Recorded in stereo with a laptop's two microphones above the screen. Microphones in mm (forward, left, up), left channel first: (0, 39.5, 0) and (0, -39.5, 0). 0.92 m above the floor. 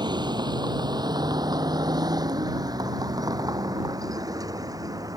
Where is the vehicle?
65° right (ahead or behind); by 5.2 s 50° right (ahead or behind).